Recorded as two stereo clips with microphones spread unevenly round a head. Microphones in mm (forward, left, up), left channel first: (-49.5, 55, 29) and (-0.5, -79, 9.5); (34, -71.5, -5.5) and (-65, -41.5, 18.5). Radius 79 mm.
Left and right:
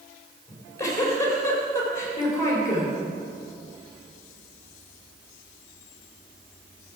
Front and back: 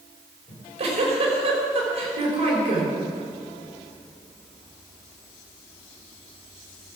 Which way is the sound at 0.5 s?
175° left.